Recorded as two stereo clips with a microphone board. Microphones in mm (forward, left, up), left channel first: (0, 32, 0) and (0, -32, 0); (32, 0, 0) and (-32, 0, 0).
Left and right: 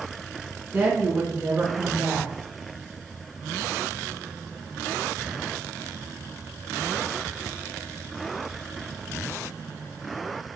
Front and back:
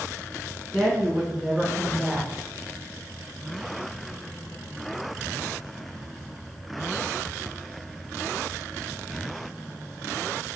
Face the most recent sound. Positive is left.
turn(degrees=-90)